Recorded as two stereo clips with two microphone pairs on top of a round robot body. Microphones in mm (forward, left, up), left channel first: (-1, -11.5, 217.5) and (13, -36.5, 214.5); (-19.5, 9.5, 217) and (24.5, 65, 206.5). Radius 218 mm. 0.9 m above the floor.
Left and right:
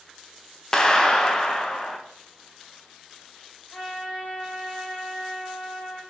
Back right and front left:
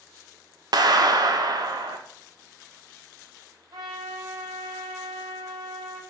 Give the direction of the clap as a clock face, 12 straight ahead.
10 o'clock.